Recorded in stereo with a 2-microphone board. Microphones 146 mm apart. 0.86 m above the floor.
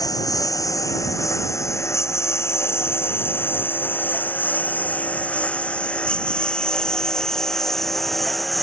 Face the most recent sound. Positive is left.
turn(degrees=0)  # may be behind; listen again after turning